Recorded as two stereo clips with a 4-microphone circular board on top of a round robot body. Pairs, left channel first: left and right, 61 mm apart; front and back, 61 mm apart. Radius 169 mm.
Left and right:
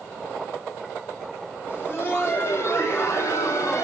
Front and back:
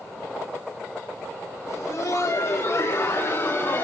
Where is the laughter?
35° left, 5.5 m; by 3.8 s 55° left, 5 m.